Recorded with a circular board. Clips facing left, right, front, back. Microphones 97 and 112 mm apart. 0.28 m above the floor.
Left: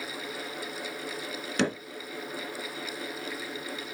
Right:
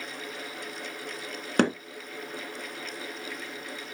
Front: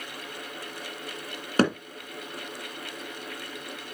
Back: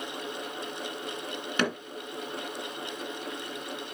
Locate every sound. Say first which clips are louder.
1.6 s hammering: right 4 dB, front 7 dB; 50° right, 1.9 m